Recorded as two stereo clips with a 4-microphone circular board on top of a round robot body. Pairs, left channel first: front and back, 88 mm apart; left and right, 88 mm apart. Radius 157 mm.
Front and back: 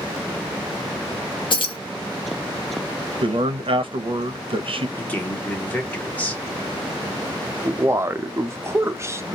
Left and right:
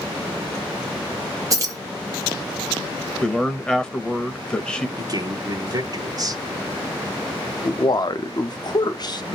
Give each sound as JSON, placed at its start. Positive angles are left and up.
{"t": 1.5, "sound": "keys jangling", "azimuth_deg": -35, "distance_m": 1.0}
{"t": 3.2, "sound": "a man speaking", "azimuth_deg": 170, "distance_m": 0.7}
{"t": 5.0, "sound": "a man speaking", "azimuth_deg": -65, "distance_m": 1.2}
{"t": 7.6, "sound": "a man speaking", "azimuth_deg": 125, "distance_m": 0.6}